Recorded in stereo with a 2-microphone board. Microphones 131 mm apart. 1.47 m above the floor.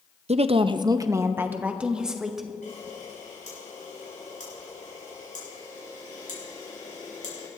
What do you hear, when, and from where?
0.3 s a woman speaking: 55° right (ahead or behind), 0.5 m; by 2.5 s centre (ahead or behind), 1.4 m
2.6 s a camera shutter: 80° left, 6 m